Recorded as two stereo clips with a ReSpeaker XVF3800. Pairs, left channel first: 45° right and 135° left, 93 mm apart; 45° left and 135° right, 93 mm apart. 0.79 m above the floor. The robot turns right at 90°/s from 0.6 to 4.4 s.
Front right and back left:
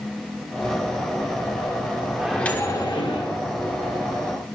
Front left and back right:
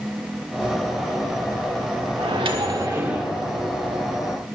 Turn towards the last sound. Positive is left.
turn(degrees=55)